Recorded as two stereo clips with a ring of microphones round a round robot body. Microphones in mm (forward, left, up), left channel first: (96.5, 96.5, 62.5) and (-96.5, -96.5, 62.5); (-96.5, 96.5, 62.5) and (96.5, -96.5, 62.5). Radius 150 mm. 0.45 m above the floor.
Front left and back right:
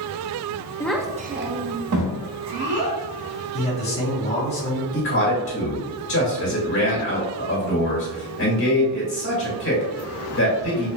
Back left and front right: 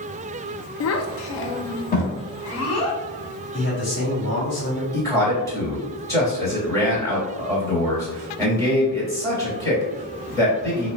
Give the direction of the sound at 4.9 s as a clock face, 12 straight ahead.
10 o'clock.